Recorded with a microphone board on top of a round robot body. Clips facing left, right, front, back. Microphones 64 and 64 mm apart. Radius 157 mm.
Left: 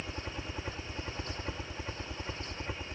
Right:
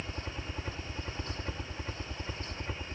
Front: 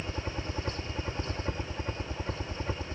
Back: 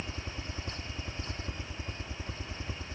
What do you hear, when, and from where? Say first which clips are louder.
0.0 s a helicopter: even, front 5 dB; 5° left